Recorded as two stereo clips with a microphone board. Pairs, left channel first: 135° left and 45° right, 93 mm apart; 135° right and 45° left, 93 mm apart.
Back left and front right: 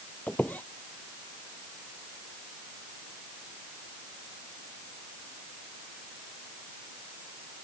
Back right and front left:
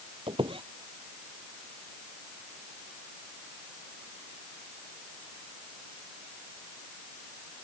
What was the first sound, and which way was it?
A squeak, 60° left.